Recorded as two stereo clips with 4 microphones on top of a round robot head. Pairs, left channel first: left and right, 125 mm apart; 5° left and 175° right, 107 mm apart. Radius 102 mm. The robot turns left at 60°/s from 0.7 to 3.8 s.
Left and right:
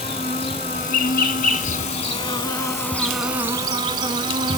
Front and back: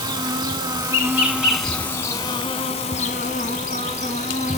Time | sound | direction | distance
0.0 | an insect | 145° left | 1.3 m